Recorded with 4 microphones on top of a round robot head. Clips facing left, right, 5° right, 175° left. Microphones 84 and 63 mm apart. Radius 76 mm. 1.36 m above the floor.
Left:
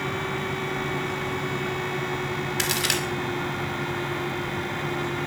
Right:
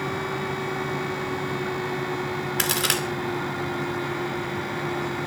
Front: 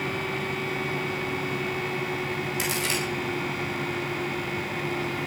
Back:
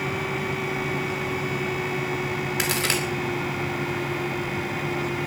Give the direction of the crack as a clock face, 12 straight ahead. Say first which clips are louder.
Right 2 dB, back 4 dB; 4 o'clock.